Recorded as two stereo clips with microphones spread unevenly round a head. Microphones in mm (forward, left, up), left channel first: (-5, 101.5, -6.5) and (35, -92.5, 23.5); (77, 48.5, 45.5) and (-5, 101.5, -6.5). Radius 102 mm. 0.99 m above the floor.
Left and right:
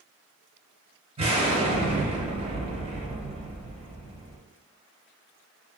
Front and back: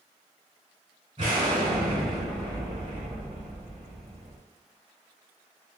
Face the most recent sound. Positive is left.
turn(degrees=-135)